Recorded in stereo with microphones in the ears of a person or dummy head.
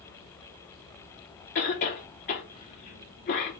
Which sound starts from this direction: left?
A cough, at 1.6 s.